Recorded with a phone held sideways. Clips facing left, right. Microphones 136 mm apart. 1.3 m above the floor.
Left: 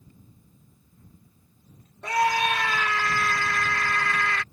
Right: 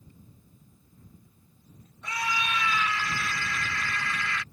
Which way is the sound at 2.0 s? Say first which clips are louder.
Left 9 dB; 65° left (ahead or behind).